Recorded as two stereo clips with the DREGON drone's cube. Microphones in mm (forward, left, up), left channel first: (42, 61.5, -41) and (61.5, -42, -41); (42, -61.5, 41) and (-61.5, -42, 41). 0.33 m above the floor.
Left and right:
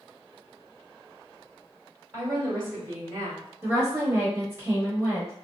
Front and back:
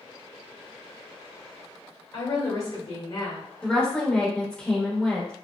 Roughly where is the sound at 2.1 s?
Ahead right.